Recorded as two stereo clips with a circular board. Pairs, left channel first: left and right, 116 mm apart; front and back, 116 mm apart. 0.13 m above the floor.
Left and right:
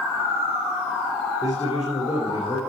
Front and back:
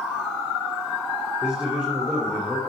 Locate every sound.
1.4 s a man speaking: 105° left, 3 m